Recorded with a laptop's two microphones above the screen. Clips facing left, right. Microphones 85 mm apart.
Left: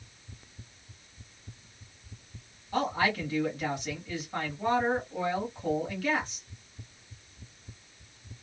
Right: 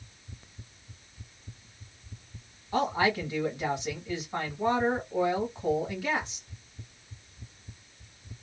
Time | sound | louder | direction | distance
2.7 | a woman speaking | right 2 dB | 20° right (ahead or behind) | 1.3 m